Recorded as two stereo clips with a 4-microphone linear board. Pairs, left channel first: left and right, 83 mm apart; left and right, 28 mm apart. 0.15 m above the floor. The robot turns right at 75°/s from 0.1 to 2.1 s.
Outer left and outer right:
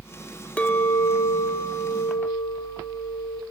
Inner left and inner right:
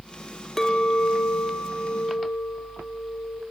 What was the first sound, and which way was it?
A clink, 20° left.